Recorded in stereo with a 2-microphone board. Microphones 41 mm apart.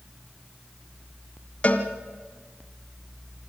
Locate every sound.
1.6 s a cowbell: 35° left (ahead or behind), 1.8 m